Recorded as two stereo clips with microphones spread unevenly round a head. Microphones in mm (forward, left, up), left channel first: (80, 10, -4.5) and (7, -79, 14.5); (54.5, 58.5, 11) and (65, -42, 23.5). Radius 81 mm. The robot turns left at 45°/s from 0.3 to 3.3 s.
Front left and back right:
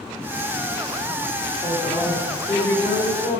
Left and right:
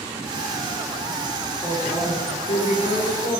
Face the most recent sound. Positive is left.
turn(degrees=90)